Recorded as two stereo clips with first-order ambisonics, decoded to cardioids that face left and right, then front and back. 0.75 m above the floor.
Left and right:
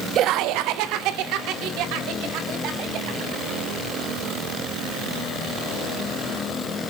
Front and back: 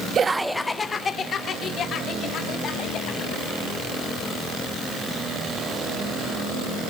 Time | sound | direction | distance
0.1 | laughter | 125° right | 0.6 m